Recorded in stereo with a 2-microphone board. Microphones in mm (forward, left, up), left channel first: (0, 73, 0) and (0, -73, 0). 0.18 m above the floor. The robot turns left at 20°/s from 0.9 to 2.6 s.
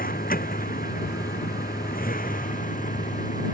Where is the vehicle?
100° left; by 3.5 s 65° left.